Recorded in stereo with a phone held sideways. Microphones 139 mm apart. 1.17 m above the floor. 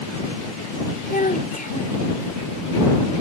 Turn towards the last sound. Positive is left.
turn(degrees=80)